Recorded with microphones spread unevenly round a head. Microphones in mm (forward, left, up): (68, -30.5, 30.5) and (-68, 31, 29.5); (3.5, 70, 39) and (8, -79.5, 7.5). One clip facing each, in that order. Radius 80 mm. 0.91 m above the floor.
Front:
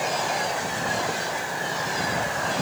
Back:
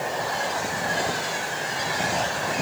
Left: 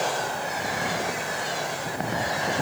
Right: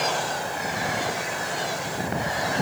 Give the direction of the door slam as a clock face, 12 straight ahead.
No door slam in this recording.